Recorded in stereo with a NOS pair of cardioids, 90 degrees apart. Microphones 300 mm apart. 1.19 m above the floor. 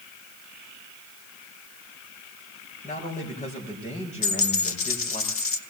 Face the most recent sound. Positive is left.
turn(degrees=50)